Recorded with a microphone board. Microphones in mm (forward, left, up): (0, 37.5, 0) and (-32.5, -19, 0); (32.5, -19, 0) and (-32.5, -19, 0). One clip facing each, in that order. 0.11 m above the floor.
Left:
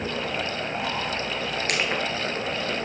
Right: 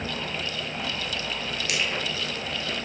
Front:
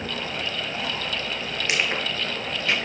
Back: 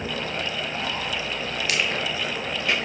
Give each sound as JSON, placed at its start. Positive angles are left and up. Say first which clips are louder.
{"t": 1.7, "sound": "crushing", "louder": "left 2 dB, front 1 dB", "azimuth_deg": 55, "distance_m": 1.3}